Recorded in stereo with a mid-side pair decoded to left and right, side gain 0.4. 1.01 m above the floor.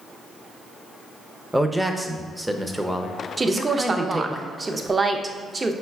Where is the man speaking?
5° right, 0.5 m.